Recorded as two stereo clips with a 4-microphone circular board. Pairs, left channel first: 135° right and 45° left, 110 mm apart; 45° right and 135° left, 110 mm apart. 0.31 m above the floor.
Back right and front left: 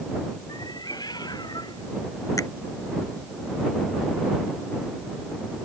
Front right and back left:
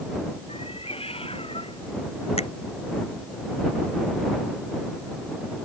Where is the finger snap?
75° right.